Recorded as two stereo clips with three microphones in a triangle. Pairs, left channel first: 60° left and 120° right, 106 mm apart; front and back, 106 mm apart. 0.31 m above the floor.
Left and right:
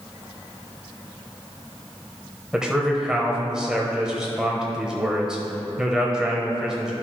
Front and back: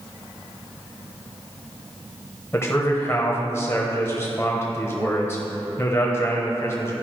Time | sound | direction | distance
2.5 | a man speaking | 40° right | 1.0 m